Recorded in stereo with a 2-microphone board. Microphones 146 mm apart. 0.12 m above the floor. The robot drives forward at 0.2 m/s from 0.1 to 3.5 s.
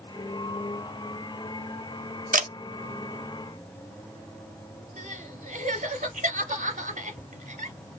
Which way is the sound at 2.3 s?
70° right (ahead or behind).